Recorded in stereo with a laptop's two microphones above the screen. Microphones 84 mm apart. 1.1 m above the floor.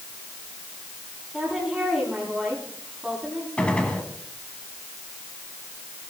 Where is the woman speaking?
5° right (ahead or behind), 8.5 m.